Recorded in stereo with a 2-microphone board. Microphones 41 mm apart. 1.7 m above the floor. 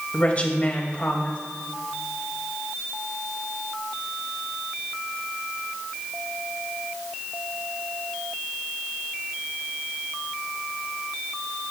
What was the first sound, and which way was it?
A woman speaking, 35° left (ahead or behind).